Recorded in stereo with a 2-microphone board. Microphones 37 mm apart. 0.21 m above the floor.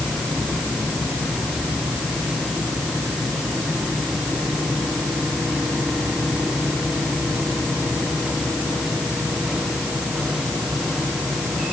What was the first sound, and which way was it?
Only background noise.